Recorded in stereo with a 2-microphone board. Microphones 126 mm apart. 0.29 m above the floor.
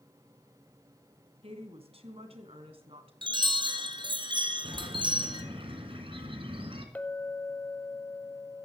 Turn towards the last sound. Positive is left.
turn(degrees=15)  # may be behind; listen again after turning